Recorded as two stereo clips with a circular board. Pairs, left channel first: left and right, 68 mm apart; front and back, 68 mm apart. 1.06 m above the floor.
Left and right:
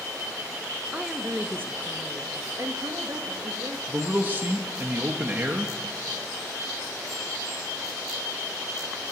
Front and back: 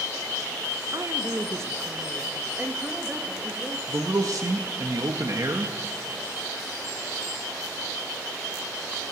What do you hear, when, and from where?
0.9 s a woman speaking: 165° right, 1.0 m; by 3.8 s 105° right, 2 m
3.9 s a man speaking: 150° right, 1.3 m